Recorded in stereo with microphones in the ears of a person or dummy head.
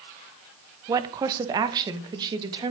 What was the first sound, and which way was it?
A woman speaking, 20° right (ahead or behind).